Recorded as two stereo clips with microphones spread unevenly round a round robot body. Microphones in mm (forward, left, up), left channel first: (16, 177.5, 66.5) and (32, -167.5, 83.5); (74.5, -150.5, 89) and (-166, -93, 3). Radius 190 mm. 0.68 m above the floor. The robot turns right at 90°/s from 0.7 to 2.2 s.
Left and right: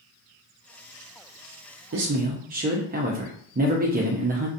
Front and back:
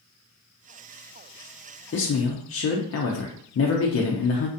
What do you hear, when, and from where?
1.9 s a man speaking: 60° right, 0.6 m; by 4.5 s 35° right, 0.6 m